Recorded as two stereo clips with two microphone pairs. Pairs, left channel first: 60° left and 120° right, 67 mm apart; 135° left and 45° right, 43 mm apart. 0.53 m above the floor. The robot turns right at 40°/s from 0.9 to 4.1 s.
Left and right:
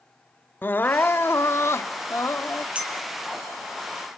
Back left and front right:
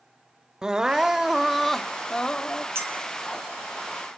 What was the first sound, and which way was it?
Crying, 20° left.